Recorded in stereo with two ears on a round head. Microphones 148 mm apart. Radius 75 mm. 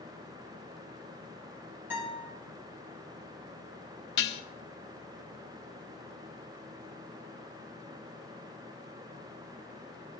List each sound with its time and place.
1.9 s a guitar: 10° right (ahead or behind), 7 m
4.2 s dishes clattering: 75° left (ahead or behind), 1.1 m